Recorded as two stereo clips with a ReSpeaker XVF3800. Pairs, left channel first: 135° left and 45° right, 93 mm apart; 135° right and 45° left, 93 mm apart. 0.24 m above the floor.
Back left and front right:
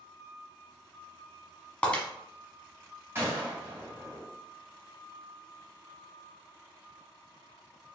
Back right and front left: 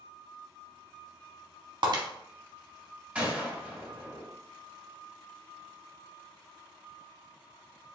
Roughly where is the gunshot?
Ahead.